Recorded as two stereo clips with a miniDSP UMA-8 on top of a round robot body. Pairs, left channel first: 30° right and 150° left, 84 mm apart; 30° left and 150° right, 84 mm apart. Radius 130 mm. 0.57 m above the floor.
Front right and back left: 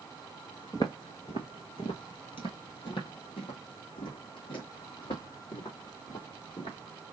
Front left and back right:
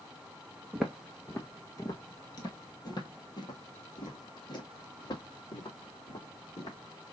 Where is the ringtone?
I don't hear a ringtone.